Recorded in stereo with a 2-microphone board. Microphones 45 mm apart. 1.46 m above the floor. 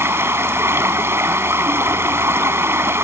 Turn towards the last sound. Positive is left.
turn(degrees=-70)  # may be behind; listen again after turning